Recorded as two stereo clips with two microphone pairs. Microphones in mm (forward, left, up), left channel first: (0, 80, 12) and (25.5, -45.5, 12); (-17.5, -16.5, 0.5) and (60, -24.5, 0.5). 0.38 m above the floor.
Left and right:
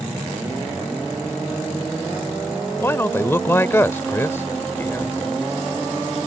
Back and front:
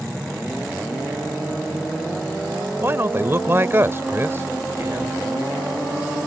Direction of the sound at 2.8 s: 35° left.